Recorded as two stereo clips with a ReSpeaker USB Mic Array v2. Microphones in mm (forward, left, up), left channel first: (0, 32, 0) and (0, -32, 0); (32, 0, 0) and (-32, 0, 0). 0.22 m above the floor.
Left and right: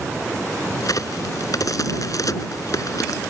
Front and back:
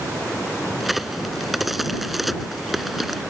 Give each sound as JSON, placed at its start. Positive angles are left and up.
{"t": 0.8, "sound": "a crack", "azimuth_deg": 90}